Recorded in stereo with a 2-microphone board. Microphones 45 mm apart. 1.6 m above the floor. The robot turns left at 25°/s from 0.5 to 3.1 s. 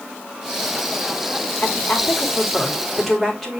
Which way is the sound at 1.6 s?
35° left.